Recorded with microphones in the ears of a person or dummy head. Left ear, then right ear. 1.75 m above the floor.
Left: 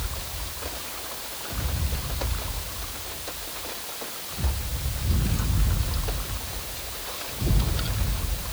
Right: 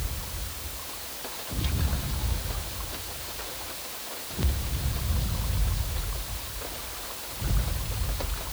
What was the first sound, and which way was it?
Only background noise.